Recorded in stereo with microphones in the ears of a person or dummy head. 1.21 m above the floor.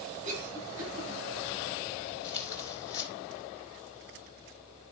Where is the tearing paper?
35° right (ahead or behind), 3.5 m.